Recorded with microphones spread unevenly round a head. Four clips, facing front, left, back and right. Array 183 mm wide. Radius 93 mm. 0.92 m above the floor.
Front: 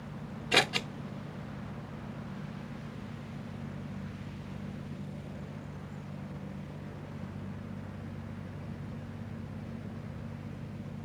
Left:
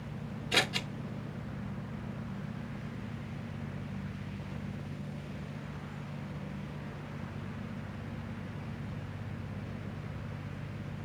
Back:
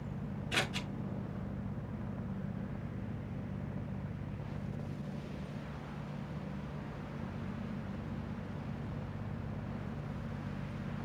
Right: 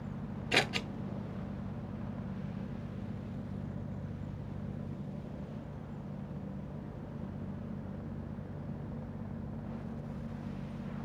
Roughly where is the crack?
No crack in this recording.